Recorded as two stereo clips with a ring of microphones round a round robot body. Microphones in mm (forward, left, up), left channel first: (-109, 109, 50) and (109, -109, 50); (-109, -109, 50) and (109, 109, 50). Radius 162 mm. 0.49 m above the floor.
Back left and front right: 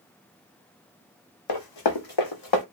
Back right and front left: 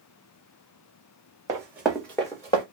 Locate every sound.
1.5 s running footsteps: 120° left, 1.2 m; by 2.6 s 150° left, 1.5 m